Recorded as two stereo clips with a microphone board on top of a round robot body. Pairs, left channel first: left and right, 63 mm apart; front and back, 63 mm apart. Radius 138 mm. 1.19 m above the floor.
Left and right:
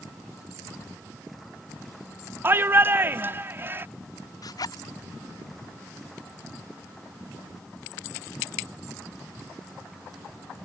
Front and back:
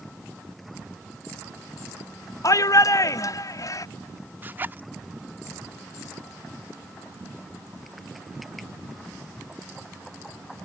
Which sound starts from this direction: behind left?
A zipper, at 4.4 s.